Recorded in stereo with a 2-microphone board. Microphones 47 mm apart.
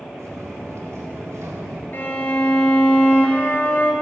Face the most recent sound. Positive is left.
turn(degrees=50)  # may be behind; listen again after turning